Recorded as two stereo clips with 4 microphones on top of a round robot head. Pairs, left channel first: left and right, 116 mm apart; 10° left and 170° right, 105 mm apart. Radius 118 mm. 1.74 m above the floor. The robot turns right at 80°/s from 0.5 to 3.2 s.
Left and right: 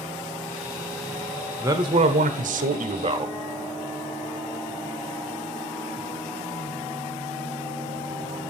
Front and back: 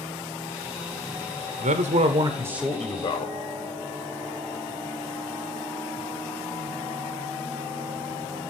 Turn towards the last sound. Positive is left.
turn(degrees=-40)